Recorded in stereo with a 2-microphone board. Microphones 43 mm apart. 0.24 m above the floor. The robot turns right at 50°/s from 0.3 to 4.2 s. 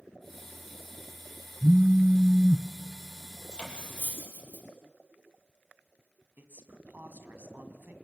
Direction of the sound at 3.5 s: 15° left (ahead or behind).